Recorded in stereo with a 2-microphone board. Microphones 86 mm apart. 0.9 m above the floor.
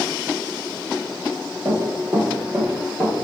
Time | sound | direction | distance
1.6 | running footsteps | 20° right (ahead or behind) | 1.2 m